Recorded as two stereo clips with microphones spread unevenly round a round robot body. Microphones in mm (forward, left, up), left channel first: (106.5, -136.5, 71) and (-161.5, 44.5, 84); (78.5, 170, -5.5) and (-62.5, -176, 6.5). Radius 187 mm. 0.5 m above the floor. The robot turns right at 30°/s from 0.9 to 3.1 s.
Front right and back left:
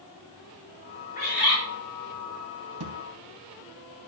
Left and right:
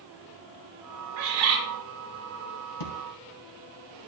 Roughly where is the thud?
Left.